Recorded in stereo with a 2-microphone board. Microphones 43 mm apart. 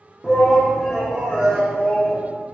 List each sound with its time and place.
0.2 s a shout: 5° left (ahead or behind), 0.9 m; by 2.2 s centre (ahead or behind), 2 m